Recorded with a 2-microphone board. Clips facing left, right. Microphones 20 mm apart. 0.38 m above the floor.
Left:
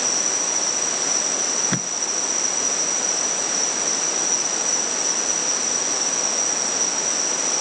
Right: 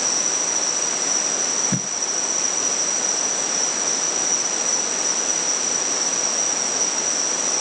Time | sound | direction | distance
0.0 | an insect | centre (ahead or behind) | ?
1.7 | tape being pulled | 35° left (ahead or behind) | ?